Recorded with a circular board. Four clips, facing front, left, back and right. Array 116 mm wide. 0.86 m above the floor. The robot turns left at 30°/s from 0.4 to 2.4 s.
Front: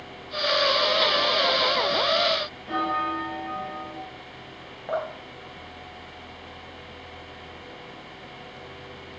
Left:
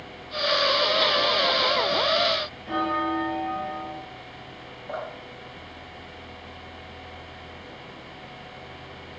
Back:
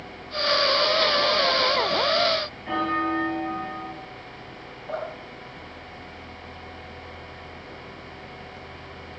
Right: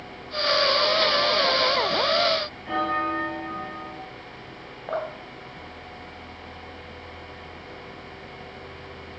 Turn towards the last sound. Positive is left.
turn(degrees=-70)